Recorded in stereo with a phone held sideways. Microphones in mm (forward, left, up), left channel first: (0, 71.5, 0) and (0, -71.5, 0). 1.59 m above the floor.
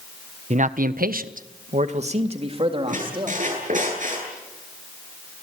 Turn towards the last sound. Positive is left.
turn(degrees=-65)  # may be behind; listen again after turning